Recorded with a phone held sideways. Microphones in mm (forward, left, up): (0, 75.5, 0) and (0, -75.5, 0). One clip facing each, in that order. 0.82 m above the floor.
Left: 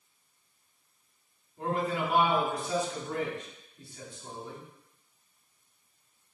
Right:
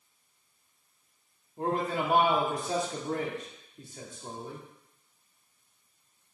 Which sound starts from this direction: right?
A man speaking, at 1.6 s.